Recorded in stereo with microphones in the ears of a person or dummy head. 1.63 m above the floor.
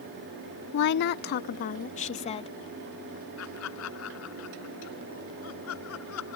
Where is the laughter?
85° left.